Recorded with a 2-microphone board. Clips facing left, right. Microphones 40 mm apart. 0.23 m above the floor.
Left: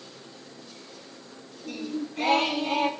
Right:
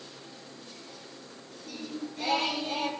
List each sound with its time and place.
1.6 s singing: 55° left (ahead or behind), 0.5 m